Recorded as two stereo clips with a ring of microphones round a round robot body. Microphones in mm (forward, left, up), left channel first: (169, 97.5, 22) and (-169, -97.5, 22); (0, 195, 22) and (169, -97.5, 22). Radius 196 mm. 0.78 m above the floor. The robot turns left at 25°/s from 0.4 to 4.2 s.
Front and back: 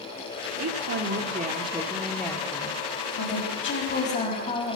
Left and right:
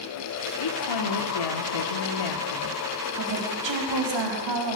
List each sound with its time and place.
0.6 s a woman speaking: 160° left, 1.7 m; by 2.8 s 105° left, 1.7 m
3.2 s a woman speaking: 20° right, 5.5 m; by 4.8 s 45° right, 5.5 m